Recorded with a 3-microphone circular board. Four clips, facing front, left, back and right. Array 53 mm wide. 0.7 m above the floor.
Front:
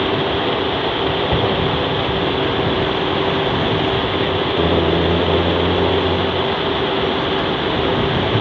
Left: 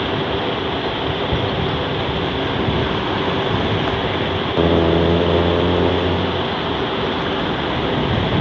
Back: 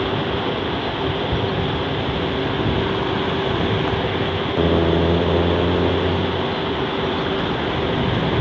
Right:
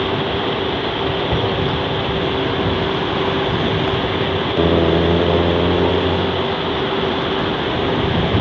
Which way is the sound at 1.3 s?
5° right.